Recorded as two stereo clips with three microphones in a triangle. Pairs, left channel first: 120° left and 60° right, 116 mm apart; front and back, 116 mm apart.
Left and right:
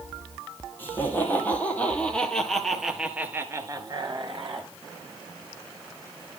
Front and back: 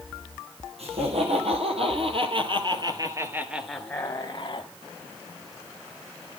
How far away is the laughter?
About 4.5 m.